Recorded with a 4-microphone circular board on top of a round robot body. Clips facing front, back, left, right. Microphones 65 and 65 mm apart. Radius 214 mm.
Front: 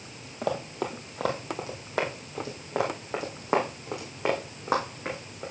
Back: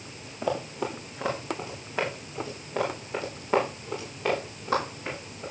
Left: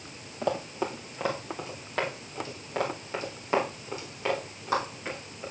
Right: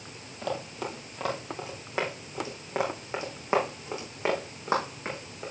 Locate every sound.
0.4 s running footsteps: 25° left, 1.5 m; by 5.5 s 30° right, 3.5 m